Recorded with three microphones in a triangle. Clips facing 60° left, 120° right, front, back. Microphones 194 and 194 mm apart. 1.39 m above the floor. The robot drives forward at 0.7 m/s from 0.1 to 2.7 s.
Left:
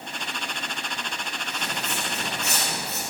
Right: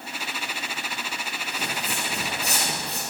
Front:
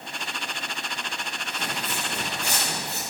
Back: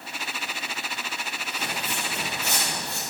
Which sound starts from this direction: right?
Footsteps, at 1.5 s.